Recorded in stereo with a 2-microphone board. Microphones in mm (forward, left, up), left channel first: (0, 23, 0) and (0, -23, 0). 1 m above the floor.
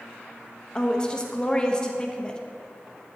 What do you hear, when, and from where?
0.8 s a woman speaking: 20° left (ahead or behind), 0.9 m